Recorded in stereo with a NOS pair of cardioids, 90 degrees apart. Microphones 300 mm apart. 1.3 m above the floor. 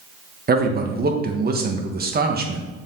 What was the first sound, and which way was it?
A man speaking, 30° right.